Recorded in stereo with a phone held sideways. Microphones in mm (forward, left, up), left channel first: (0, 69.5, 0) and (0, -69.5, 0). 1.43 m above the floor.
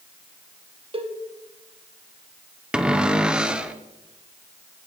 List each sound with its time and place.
0.9 s a cowbell: 40° right (ahead or behind), 1.1 m
2.7 s a cupboard door: 5° right (ahead or behind), 0.6 m